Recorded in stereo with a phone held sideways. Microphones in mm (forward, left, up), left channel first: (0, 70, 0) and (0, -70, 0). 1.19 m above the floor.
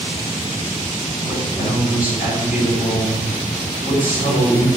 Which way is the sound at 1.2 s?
90° left.